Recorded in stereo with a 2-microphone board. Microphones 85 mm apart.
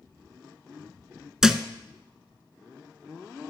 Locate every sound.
1.4 s a thud: 10° right (ahead or behind), 0.6 m